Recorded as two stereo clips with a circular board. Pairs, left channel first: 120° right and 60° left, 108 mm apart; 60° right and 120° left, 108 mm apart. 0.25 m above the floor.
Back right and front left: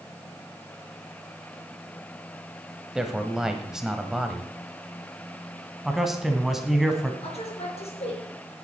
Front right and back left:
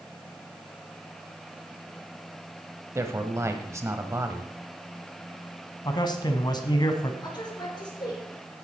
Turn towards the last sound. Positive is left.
turn(degrees=-105)